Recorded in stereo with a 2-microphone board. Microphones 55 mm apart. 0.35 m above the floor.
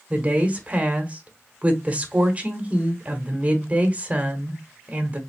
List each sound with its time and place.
0.1 s a woman speaking: 25° right (ahead or behind), 1.2 m